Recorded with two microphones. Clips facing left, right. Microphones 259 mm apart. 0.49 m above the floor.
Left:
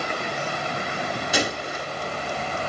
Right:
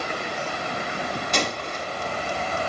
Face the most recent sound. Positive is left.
turn(degrees=10)  # may be behind; listen again after turning